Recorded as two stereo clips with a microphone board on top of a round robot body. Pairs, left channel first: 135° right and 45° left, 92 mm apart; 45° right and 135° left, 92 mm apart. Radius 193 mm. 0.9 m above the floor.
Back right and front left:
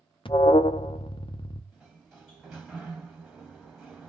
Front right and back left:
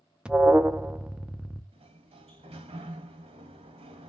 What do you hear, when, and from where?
0.2 s an alarm: 145° right, 0.6 m
1.7 s a sliding door: 135° left, 0.6 m